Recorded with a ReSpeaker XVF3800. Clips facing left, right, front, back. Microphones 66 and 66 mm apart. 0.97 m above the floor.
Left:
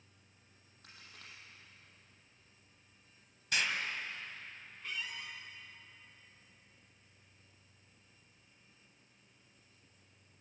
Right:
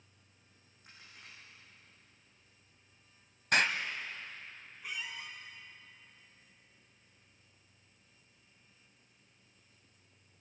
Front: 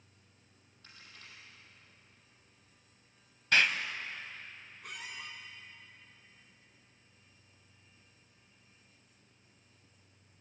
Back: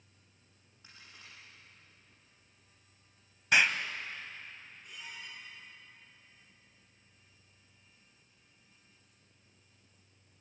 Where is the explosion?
105° right, 1.3 m.